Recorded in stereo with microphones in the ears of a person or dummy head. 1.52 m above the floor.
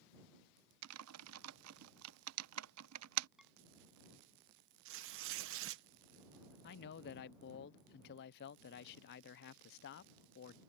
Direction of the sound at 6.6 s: 55° left (ahead or behind).